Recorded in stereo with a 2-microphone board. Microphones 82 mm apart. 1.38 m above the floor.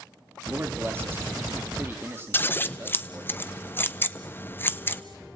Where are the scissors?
25° left (ahead or behind), 0.8 m.